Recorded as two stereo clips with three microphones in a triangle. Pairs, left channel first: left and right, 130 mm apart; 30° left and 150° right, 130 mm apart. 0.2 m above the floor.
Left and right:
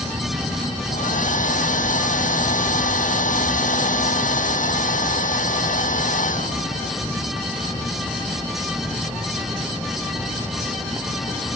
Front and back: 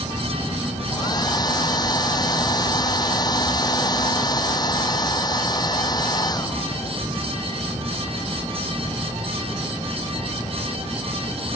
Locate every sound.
0.9 s a hair dryer: 90° left